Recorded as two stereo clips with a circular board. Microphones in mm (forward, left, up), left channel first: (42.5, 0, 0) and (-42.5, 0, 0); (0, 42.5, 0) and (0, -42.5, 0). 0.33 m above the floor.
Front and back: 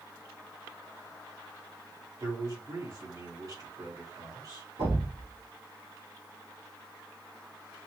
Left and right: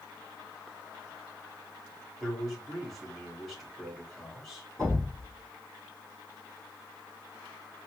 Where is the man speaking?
Straight behind, 2 m.